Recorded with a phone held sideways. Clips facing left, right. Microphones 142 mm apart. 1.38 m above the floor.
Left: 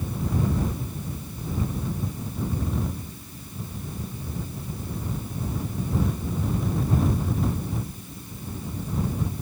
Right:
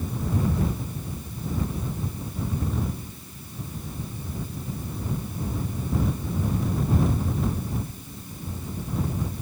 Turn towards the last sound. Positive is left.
No sound to turn to.